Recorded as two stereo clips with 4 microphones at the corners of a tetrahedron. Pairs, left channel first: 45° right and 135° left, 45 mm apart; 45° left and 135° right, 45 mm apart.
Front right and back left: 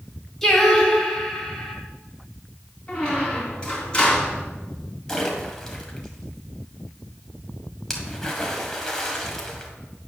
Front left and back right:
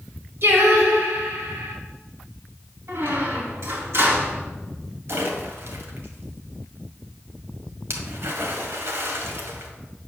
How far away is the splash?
About 1.7 m.